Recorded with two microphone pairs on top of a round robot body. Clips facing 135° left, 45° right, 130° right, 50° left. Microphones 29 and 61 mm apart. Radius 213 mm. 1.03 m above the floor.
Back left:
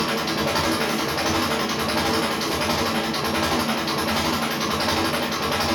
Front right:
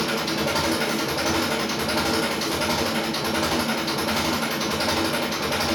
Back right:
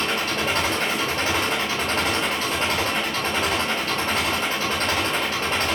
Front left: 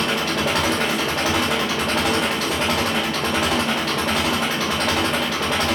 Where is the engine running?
70° left, 0.8 m.